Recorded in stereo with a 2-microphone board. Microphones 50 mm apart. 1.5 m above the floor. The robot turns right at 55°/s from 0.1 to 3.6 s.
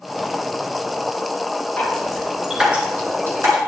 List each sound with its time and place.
1.8 s dripping: 25° left (ahead or behind), 3.5 m; by 3.6 s 65° right (ahead or behind), 3.5 m